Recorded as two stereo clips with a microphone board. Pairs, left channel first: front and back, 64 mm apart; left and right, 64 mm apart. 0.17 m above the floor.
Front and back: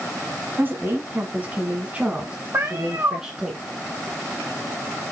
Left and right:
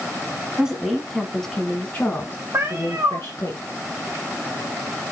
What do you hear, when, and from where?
0.6 s a woman speaking: 160° right, 1.6 m; by 3.5 s 105° left, 2 m
2.5 s a cat meowing: 135° right, 1.5 m